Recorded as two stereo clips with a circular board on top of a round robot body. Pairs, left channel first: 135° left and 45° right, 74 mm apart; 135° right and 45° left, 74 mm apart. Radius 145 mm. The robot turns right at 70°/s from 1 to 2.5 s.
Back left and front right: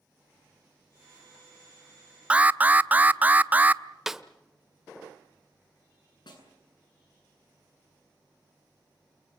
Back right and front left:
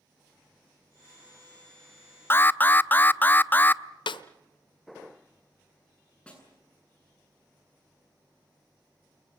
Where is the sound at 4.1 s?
130° right, 0.7 m.